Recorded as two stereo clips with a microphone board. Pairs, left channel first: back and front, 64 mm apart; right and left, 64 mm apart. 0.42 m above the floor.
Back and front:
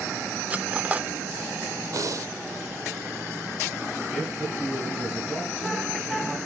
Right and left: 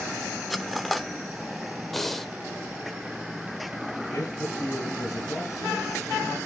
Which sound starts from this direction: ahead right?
A man speaking, at 4.1 s.